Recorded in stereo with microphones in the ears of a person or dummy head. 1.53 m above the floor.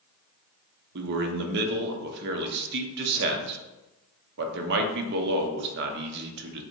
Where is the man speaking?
60° right (ahead or behind), 0.7 m.